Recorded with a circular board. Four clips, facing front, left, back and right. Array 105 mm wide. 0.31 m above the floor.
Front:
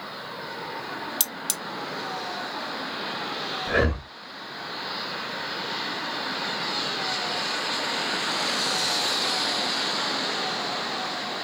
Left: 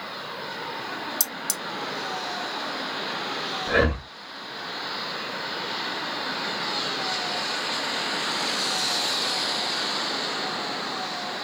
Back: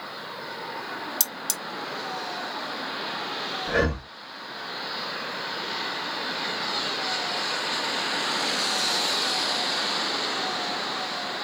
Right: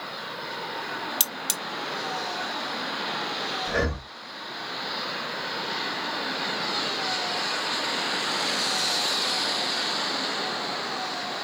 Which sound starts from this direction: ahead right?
Cutlery clinking, at 1.2 s.